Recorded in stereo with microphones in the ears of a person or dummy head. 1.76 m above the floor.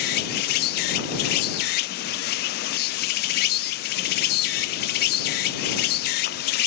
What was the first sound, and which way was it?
An insect, 60° left (ahead or behind).